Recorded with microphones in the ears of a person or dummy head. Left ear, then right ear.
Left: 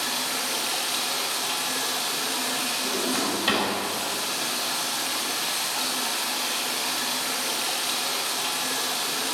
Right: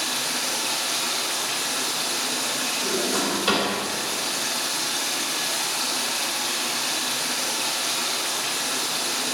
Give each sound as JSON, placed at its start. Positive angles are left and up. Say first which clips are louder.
{"t": 0.0, "sound": "running water", "louder": "right 2 dB", "side_deg": -25, "distance_m": 2.5}
{"t": 2.8, "sound": "a drawer", "louder": "right 2 dB", "side_deg": -10, "distance_m": 2.5}